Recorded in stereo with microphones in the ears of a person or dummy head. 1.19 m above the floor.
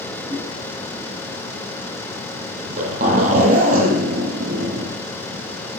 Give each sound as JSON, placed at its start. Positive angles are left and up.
{"t": 0.3, "sound": "a whoosh", "side_deg": -20, "distance_m": 7.5}
{"t": 2.6, "sound": "a zipper", "side_deg": -45, "distance_m": 9.5}